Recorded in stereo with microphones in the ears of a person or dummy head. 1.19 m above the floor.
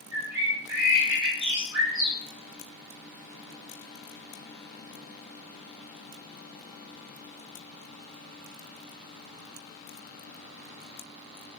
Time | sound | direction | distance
0.1 | a bird | 65° right (ahead or behind) | 1.0 m